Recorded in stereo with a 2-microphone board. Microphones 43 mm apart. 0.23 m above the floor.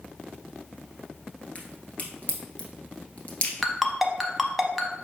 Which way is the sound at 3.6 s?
Centre (ahead or behind).